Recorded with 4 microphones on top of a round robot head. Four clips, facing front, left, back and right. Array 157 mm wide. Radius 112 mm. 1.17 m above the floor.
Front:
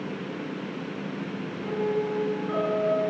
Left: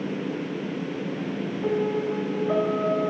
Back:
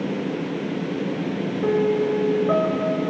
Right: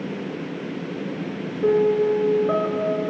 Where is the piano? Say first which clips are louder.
Right 8 dB, back 7 dB; 130° right, 3 m.